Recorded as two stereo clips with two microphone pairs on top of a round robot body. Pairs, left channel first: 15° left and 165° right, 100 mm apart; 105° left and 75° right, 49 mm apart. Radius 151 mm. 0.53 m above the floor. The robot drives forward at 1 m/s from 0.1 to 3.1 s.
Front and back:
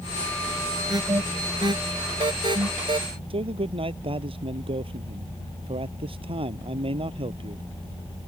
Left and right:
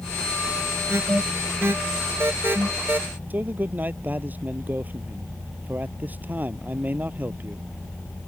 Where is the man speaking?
130° right.